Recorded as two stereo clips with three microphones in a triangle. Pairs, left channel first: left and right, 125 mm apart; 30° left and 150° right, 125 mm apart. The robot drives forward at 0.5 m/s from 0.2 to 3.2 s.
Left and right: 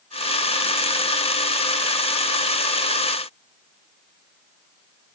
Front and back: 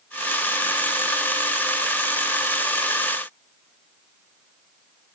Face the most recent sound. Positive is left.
No sound to turn to.